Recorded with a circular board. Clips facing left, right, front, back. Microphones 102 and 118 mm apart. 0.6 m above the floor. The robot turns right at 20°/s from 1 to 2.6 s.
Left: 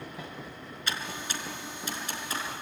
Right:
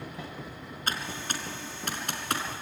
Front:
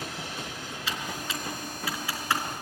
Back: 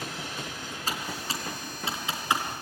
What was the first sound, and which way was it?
Typing on a keyboard, 135° right.